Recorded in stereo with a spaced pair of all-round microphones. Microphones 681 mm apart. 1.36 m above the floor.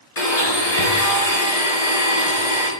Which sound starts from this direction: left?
A blender, at 0.2 s.